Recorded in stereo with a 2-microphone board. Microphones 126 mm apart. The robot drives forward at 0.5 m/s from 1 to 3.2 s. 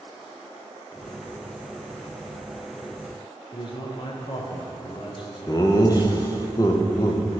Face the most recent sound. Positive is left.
turn(degrees=30)  # may be behind; listen again after turning